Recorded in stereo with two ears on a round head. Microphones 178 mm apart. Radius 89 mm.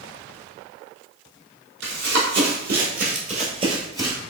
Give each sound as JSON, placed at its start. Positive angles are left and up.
{"t": 1.8, "sound": "running footsteps", "side_deg": -65, "distance_m": 1.7}